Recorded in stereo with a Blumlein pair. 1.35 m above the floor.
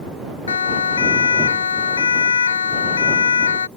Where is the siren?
70° left.